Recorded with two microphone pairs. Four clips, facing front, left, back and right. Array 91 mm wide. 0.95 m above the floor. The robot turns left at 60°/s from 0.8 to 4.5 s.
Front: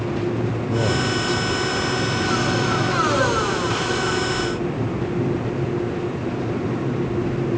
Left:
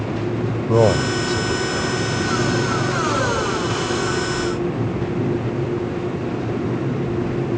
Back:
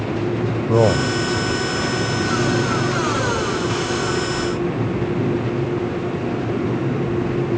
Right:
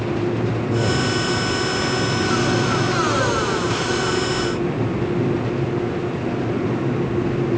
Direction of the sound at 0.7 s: 130° left.